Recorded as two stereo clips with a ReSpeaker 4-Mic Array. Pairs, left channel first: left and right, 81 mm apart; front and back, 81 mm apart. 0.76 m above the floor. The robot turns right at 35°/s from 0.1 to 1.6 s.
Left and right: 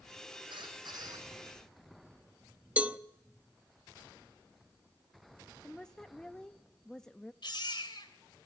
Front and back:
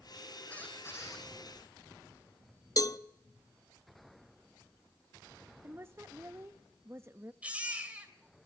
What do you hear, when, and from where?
0.5 s a squeak: 75° right, 7 m; by 1.3 s 45° right, 7 m
2.8 s a cowbell: 25° right, 0.7 m
5.6 s a woman speaking: 165° left, 0.6 m
7.4 s a baby crying: 105° left, 3 m